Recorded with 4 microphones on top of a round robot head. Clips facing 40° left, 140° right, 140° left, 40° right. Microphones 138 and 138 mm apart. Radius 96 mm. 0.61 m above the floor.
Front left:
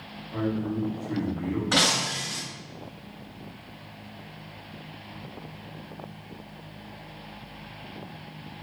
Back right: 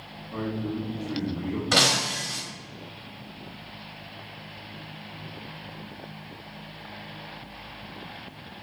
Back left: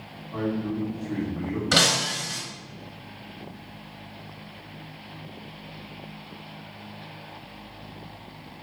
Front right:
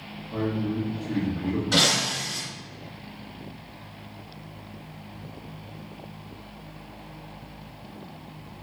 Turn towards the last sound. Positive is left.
turn(degrees=160)